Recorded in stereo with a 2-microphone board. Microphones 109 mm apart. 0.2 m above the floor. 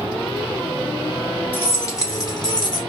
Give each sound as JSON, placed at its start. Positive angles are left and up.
{"t": 1.5, "sound": "keys jangling", "side_deg": 20, "distance_m": 1.0}